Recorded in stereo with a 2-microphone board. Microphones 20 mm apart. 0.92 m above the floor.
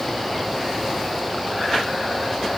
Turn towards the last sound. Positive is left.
No sound to turn to.